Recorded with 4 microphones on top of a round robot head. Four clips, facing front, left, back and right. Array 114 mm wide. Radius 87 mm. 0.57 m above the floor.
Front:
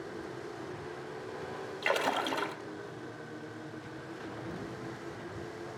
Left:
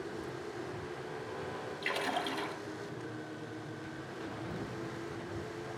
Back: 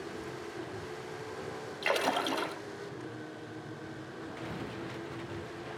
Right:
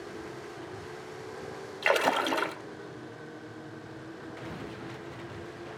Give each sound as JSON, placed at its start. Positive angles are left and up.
{"t": 1.8, "sound": "a splash", "azimuth_deg": -95, "distance_m": 3.0}